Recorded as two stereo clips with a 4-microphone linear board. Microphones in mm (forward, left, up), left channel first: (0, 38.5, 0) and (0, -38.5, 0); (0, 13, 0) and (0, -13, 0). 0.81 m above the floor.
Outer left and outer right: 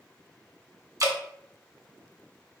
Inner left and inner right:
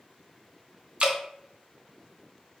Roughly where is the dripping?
Right.